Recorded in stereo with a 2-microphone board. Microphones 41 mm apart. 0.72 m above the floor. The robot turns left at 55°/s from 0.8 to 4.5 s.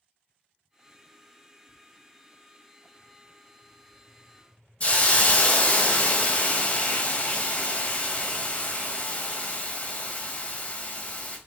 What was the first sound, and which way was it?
A hiss, 35° left (ahead or behind).